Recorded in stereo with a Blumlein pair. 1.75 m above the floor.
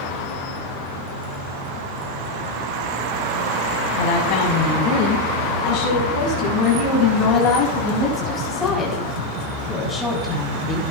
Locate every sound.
4.0 s a woman speaking: 50° left, 5 m; by 10.8 s 5° left, 4 m